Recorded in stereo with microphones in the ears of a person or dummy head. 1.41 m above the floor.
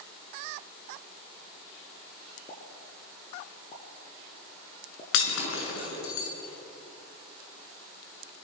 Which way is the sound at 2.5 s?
30° left (ahead or behind).